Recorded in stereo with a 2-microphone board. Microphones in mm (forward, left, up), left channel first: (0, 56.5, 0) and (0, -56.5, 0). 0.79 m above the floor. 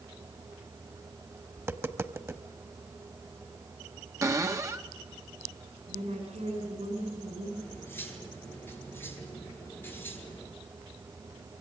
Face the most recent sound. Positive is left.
turn(degrees=15)  # may be behind; listen again after turning